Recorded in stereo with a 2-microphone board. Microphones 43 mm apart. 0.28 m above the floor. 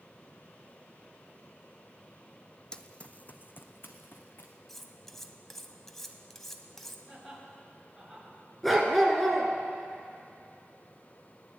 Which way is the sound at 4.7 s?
10° left (ahead or behind).